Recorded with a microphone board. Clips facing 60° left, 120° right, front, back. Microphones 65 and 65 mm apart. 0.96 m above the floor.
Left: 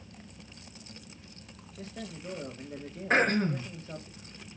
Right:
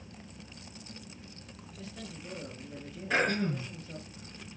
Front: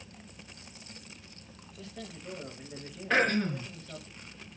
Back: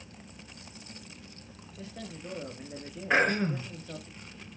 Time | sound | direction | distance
1.8 | a man speaking | 115° left | 2 m
3.1 | throat clearing | 110° left | 3.5 m